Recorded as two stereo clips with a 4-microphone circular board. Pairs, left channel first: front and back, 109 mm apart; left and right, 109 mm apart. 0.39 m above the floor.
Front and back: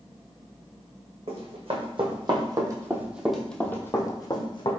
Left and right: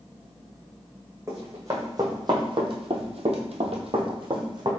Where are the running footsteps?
155° right, 1.7 m; by 4.7 s 40° right, 1.3 m.